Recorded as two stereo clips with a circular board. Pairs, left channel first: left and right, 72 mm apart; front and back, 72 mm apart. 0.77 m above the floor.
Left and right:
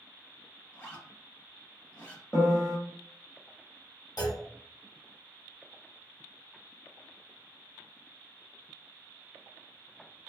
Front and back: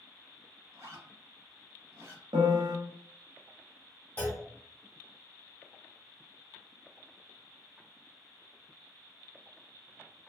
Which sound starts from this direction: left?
A clunk, at 4.2 s.